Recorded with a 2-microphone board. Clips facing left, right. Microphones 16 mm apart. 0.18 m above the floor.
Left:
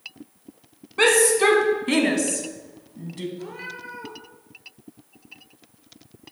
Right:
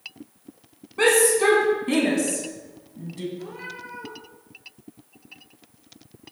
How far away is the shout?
About 1.8 m.